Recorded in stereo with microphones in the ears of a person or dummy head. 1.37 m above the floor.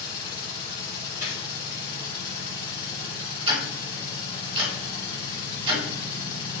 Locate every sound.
0.0 s a machine running: 25° left (ahead or behind), 1.8 m
1.2 s a gunshot: 25° right (ahead or behind), 1.5 m
3.5 s ticking: 30° right (ahead or behind), 1.3 m